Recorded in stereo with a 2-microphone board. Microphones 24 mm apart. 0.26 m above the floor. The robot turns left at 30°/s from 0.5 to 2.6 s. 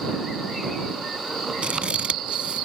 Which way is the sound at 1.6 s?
70° right (ahead or behind).